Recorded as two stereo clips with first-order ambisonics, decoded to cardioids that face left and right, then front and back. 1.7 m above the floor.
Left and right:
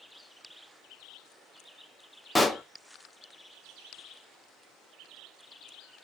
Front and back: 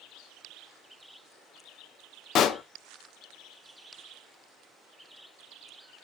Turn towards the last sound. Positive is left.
turn(degrees=10)